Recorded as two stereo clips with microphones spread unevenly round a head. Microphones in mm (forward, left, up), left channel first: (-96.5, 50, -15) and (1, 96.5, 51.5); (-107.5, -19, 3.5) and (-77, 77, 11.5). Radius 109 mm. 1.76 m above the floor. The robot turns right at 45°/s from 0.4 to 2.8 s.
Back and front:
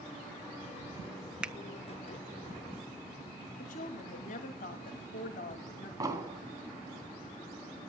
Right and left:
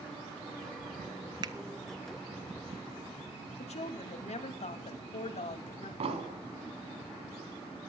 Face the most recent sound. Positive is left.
turn(degrees=55)